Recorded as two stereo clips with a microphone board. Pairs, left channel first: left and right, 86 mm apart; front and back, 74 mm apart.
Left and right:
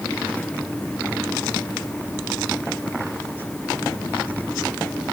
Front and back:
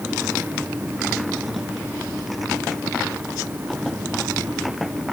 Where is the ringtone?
I don't hear a ringtone.